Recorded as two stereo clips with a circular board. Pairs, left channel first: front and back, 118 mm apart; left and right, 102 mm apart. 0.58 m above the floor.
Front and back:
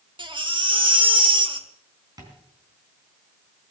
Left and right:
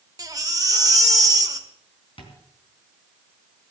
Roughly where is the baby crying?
Behind right.